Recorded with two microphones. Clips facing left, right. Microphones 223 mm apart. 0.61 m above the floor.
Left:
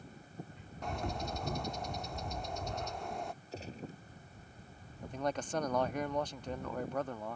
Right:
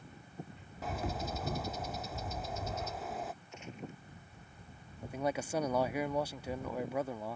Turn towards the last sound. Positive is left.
turn(degrees=-10)  # may be behind; listen again after turning